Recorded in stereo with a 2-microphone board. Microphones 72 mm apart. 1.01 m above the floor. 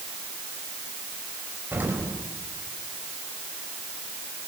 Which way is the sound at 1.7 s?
25° right (ahead or behind).